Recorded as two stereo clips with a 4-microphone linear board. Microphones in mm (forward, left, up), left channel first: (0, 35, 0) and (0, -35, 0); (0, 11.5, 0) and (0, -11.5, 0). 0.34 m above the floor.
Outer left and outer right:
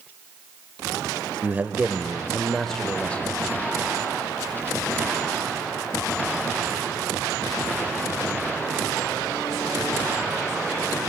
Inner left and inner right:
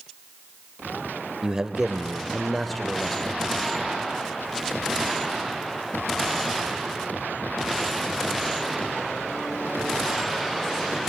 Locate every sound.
1.4 s a man speaking: 30° right (ahead or behind), 0.9 m; by 3.3 s 25° left (ahead or behind), 0.9 m